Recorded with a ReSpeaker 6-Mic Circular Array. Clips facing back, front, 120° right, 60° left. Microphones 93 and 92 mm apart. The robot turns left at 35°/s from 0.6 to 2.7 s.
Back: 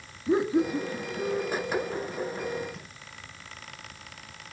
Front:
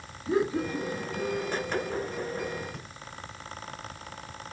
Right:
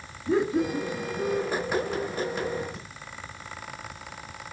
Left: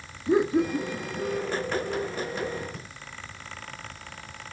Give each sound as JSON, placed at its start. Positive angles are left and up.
{"t": 0.3, "sound": "laughter", "azimuth_deg": 125, "distance_m": 1.6}
{"t": 2.7, "sound": "breathing", "azimuth_deg": 25, "distance_m": 3.5}